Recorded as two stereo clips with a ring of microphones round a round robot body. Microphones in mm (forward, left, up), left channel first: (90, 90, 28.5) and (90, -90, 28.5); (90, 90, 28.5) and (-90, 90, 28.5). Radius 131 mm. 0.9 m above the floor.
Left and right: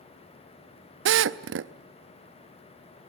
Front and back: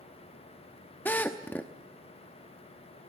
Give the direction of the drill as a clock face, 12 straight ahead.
3 o'clock.